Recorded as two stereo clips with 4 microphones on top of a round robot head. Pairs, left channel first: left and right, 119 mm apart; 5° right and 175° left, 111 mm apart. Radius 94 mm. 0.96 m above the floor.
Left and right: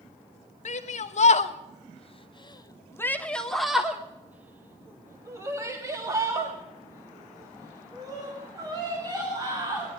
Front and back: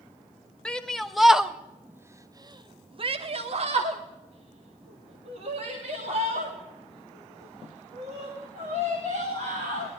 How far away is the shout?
About 1.4 m.